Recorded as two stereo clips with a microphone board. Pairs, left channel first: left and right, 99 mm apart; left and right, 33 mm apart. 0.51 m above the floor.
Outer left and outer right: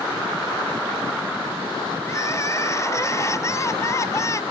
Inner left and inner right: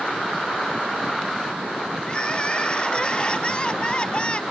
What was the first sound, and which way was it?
Crying, 30° left (ahead or behind).